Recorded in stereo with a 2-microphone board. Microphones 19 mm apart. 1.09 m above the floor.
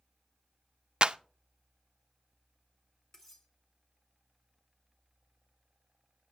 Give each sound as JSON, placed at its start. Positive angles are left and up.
{"t": 1.0, "sound": "a clap", "side_deg": -50, "distance_m": 0.5}
{"t": 3.1, "sound": "cutlery clinking", "side_deg": 20, "distance_m": 2.0}